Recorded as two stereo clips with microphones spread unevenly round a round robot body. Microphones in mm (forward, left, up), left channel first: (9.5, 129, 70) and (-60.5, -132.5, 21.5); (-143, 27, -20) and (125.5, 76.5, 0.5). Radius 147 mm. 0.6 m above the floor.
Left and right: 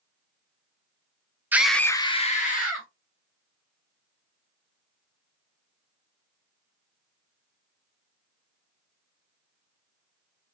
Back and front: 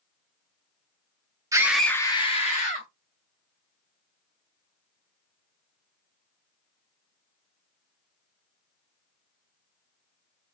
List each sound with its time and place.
1.5 s a scream: 60° right, 0.6 m; by 2.9 s 135° left, 1.0 m